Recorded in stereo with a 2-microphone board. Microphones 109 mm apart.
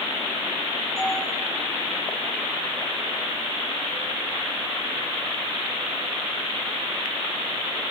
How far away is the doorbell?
About 7 m.